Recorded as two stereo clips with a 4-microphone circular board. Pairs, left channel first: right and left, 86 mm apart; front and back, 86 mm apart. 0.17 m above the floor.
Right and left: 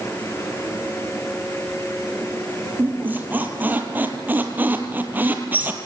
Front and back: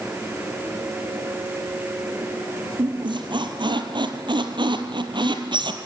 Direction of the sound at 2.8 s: 160° left.